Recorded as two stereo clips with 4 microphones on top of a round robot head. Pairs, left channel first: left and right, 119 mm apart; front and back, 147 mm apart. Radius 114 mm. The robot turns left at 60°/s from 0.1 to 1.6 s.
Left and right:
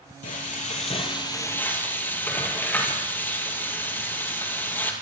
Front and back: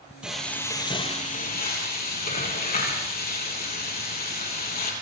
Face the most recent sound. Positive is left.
turn(degrees=15)